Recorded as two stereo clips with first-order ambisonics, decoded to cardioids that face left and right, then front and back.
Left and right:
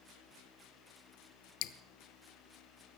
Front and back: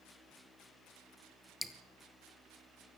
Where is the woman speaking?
No woman speaking in this recording.